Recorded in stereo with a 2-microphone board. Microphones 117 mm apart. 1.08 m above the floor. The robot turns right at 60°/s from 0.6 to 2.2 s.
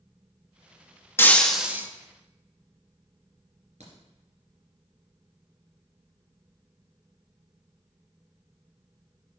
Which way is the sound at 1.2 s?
160° left.